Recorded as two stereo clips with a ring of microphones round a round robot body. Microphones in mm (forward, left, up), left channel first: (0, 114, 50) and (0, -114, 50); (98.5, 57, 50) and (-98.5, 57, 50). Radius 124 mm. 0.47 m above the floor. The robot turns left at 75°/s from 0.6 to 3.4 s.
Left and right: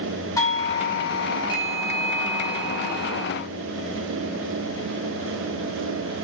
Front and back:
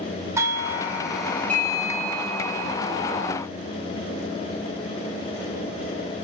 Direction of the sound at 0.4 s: 135° left.